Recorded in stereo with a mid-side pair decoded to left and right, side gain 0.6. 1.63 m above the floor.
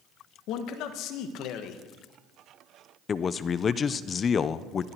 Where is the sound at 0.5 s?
65° left, 1.7 m.